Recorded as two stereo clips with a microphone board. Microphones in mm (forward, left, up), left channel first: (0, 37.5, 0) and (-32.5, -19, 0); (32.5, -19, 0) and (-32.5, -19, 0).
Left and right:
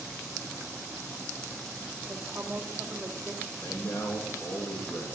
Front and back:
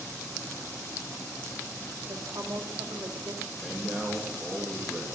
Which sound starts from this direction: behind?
A woman speaking, at 2.1 s.